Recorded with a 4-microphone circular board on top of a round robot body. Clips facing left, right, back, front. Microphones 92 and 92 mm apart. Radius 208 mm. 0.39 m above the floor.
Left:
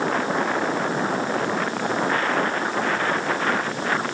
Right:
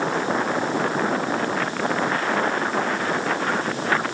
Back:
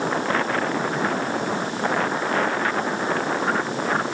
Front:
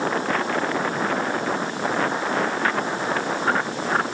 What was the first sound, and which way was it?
Only background noise.